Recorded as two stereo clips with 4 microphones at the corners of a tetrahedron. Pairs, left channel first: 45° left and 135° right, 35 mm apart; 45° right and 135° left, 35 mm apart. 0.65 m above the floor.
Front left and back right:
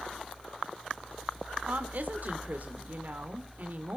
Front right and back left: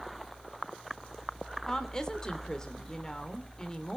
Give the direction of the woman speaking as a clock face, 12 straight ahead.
4 o'clock.